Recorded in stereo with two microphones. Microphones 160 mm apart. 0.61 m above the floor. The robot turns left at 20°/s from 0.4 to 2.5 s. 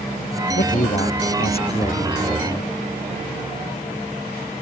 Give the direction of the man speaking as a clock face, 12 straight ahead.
10 o'clock.